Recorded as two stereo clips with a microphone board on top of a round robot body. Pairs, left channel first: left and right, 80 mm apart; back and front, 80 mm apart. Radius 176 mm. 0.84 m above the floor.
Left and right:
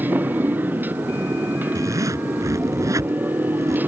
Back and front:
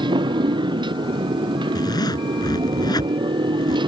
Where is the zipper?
140° right.